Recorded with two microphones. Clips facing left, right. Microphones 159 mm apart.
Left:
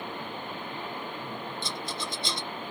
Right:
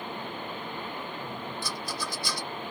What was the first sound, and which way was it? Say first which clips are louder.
A rattle: even; 25° left (ahead or behind).